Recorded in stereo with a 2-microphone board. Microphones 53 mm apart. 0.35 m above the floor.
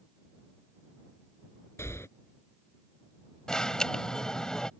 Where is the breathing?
60° left (ahead or behind).